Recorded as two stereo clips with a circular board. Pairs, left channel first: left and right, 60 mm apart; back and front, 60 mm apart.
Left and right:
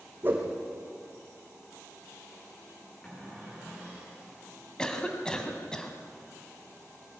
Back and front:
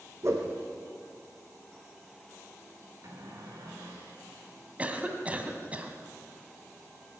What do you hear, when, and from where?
0.2 s a whoosh: 35° right, 3.5 m
3.0 s a cupboard door: 15° left, 6 m
4.8 s a cough: 30° left, 1.8 m